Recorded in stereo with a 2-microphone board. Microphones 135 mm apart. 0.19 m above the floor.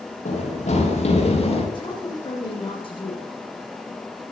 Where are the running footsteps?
60° left (ahead or behind), 6 m; by 1.6 s 50° left (ahead or behind), 7.5 m.